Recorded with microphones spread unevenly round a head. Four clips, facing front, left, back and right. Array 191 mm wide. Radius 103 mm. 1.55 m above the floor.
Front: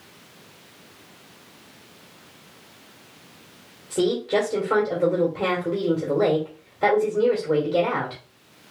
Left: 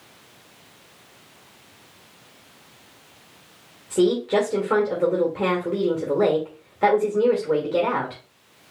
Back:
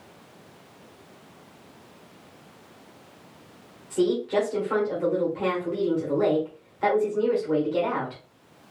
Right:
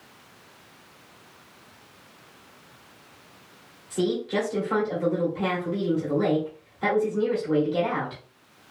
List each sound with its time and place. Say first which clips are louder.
3.9 s a woman speaking: left 6 dB, front 1 dB; 60° left, 1.7 m